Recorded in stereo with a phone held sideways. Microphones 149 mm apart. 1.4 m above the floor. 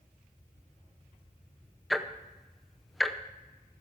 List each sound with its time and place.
1.9 s ticking: centre (ahead or behind), 0.6 m